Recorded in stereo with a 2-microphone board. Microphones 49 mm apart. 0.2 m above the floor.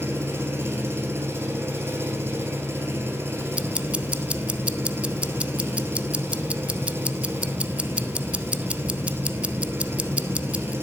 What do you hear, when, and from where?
0.0 s an engine running: 55° right (ahead or behind), 1.8 m
3.5 s ticking: 25° right (ahead or behind), 0.5 m